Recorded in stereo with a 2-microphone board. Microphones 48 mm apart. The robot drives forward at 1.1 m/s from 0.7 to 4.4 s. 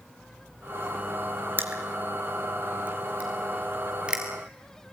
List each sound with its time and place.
1.6 s crushing: 45° right (ahead or behind), 2.5 m; by 4.2 s 20° right (ahead or behind), 5 m